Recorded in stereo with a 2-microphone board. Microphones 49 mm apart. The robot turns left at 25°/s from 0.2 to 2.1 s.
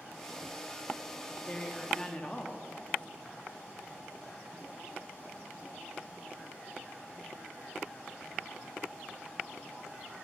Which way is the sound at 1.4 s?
20° left (ahead or behind).